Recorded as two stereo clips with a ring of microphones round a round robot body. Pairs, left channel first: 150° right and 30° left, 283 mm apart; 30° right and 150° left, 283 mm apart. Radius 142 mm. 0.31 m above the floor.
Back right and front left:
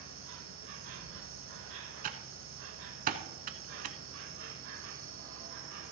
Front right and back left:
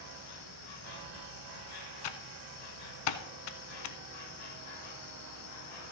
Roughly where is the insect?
Ahead.